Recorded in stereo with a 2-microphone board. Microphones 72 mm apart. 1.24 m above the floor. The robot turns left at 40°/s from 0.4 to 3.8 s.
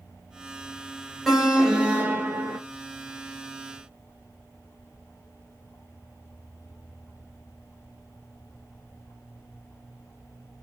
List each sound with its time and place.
1.3 s an alarm: 5° right, 1.0 m; by 2.6 s 55° right, 1.0 m